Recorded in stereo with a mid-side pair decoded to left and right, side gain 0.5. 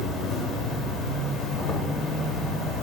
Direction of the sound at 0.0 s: 70° left.